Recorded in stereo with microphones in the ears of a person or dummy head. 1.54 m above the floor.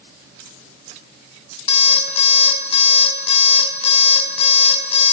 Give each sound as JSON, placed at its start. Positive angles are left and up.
{"t": 1.7, "sound": "an alarm clock", "side_deg": 35, "distance_m": 4.5}